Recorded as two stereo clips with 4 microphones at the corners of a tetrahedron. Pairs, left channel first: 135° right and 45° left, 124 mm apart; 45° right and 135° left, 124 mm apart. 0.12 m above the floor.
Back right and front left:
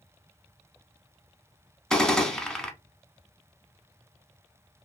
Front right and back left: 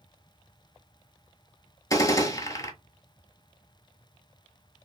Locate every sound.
1.9 s a gunshot: 55° right, 0.6 m